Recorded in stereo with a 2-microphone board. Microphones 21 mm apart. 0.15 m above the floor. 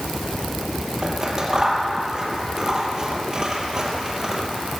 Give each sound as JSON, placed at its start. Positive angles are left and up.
{"t": 1.0, "sound": "scissors", "side_deg": -30, "distance_m": 2.5}